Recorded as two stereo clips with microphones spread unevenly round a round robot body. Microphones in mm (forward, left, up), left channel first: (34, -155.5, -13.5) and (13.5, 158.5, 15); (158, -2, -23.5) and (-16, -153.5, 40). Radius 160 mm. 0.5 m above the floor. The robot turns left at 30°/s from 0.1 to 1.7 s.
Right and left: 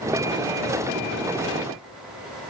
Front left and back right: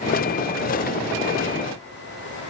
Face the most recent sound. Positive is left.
No sound to turn to.